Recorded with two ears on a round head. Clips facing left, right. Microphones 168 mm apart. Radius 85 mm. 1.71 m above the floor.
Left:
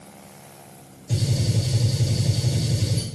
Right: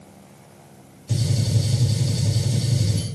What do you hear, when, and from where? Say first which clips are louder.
1.1 s a gunshot: right 1 dB; 35° right (ahead or behind), 2 m